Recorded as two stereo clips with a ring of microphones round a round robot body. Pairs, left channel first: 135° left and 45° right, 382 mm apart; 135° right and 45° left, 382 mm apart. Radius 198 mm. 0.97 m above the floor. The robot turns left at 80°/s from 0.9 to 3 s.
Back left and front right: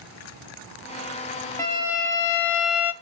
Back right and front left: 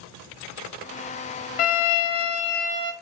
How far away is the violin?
About 0.7 m.